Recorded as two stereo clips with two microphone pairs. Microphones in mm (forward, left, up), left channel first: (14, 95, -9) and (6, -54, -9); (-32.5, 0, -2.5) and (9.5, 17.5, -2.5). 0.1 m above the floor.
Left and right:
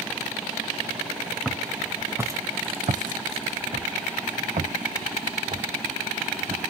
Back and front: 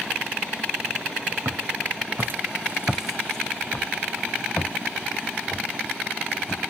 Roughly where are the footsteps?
Ahead.